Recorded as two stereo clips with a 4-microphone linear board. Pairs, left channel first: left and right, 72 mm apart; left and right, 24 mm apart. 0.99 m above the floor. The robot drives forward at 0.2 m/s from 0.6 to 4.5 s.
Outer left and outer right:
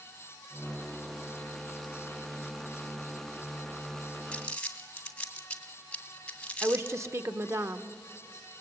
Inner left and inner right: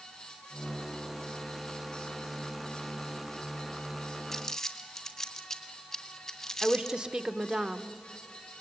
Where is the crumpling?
15° left (ahead or behind), 1.7 m.